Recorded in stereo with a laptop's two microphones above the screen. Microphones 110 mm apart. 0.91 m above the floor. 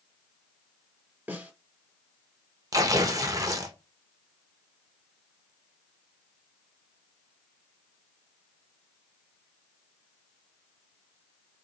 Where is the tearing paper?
30° right (ahead or behind), 0.8 m.